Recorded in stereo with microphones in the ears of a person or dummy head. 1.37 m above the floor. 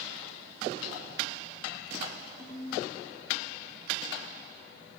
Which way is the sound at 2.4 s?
15° right (ahead or behind).